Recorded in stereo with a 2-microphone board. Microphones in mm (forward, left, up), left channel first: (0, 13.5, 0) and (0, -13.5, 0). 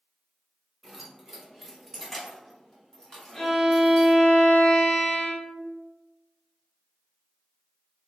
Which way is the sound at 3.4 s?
30° left (ahead or behind).